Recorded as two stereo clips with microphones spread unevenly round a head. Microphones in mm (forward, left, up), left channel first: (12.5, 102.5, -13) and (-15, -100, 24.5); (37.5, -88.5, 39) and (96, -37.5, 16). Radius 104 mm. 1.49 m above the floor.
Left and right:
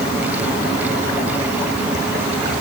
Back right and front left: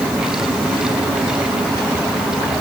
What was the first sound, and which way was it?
Only background noise.